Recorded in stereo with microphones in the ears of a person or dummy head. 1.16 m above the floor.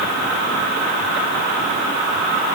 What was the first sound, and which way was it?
Only background noise.